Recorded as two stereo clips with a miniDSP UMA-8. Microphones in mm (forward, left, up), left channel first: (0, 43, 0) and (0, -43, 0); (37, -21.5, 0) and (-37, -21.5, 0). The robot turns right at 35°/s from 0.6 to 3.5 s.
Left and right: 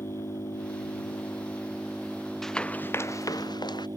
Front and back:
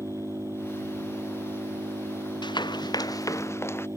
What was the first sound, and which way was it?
An engine running, 125° left.